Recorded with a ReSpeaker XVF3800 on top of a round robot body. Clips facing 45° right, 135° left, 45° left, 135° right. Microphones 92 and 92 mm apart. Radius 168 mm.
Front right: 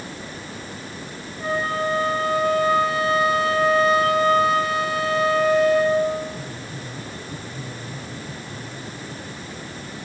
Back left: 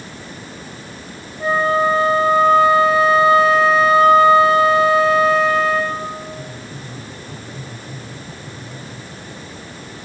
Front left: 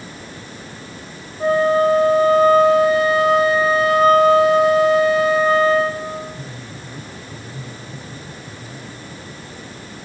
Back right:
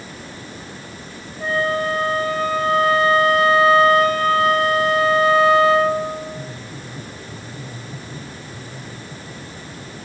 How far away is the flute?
About 2.5 m.